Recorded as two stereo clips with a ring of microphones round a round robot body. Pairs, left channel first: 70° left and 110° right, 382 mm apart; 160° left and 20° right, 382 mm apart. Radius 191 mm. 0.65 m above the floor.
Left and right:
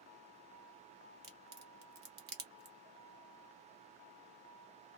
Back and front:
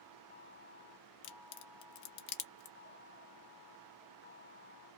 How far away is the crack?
About 0.7 m.